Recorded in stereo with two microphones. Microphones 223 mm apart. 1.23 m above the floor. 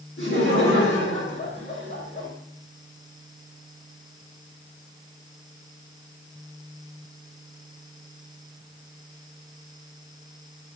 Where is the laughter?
55° left (ahead or behind), 3.5 m.